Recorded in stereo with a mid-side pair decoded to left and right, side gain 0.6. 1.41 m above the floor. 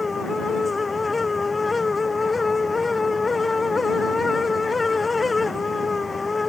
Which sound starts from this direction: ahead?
A fan, at 0.0 s.